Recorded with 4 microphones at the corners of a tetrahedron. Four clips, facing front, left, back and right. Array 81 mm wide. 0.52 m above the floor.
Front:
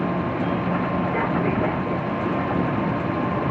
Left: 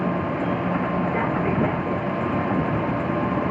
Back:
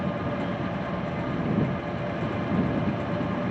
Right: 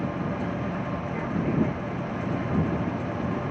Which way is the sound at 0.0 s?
40° left.